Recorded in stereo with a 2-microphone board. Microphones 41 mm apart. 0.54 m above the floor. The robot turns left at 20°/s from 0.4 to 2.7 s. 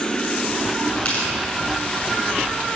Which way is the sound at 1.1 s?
35° left (ahead or behind).